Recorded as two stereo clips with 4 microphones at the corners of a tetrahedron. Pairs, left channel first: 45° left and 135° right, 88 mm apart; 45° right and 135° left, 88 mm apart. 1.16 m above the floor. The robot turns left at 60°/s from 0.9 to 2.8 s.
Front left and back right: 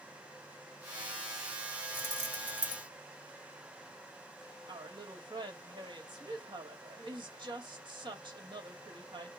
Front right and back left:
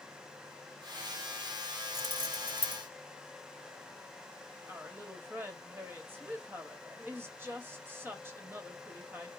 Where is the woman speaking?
160° right, 1.7 m.